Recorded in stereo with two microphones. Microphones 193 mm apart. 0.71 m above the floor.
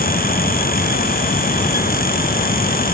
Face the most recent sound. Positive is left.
No sound to turn to.